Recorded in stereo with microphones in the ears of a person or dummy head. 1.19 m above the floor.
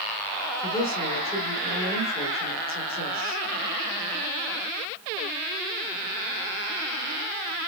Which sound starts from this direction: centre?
A woman speaking, at 0.6 s.